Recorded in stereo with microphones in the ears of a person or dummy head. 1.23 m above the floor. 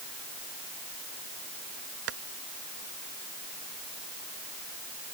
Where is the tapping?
75° right (ahead or behind).